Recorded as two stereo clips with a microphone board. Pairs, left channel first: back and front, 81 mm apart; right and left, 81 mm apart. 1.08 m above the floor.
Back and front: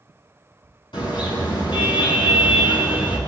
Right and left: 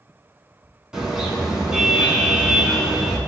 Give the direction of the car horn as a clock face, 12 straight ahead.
6 o'clock.